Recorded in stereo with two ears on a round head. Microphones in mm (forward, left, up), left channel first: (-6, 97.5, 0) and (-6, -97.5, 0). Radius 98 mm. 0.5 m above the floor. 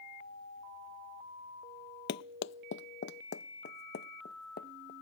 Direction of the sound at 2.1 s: 50° left (ahead or behind).